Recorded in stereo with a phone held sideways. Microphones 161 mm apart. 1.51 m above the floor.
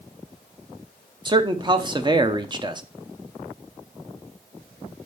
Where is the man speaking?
30° right (ahead or behind), 0.8 m.